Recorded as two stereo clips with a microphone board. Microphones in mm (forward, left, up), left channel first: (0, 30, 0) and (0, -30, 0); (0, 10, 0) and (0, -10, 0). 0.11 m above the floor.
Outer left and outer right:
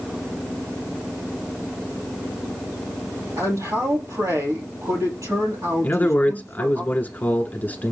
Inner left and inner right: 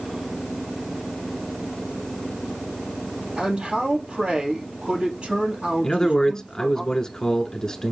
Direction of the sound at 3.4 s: 65° right (ahead or behind).